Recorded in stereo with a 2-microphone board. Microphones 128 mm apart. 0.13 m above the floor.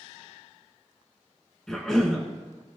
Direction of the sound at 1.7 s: 5° left (ahead or behind).